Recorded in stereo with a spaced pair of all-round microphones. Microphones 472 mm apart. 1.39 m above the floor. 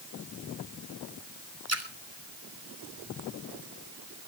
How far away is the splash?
About 2.5 m.